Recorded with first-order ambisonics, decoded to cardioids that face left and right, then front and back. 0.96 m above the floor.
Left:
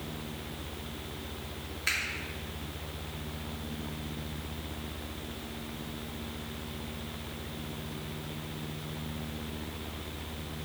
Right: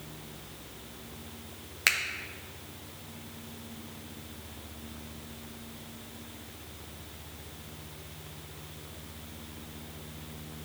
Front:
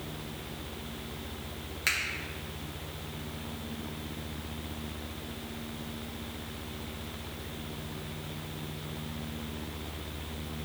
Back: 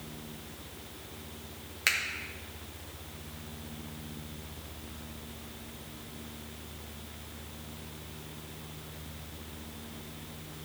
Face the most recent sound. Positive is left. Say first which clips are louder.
# right 5 dB, back 1 dB
turn(degrees=-105)